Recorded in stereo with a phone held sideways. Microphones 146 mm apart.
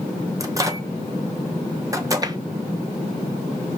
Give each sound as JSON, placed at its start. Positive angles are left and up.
{"t": 0.4, "sound": "a microwave", "side_deg": -20, "distance_m": 0.7}
{"t": 2.2, "sound": "tapping", "side_deg": -25, "distance_m": 0.5}